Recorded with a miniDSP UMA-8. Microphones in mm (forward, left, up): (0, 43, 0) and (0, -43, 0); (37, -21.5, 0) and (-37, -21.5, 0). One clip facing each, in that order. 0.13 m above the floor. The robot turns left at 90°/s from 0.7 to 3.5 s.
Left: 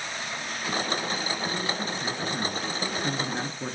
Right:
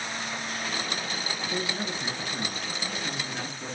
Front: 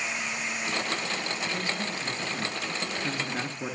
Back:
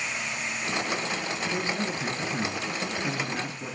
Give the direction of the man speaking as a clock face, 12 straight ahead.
4 o'clock.